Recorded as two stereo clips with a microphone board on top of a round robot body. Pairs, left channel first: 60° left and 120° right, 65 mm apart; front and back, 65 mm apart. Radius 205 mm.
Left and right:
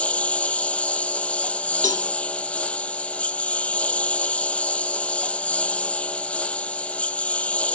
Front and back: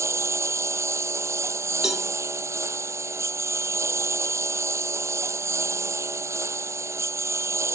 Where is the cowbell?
95° left.